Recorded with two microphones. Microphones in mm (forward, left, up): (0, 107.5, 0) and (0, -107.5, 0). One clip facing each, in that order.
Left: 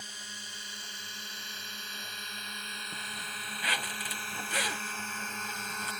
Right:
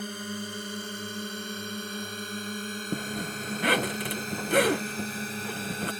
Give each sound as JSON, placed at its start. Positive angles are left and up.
{"t": 0.0, "sound": "a drone", "side_deg": -60}
{"t": 2.9, "sound": "a zipper", "side_deg": -60}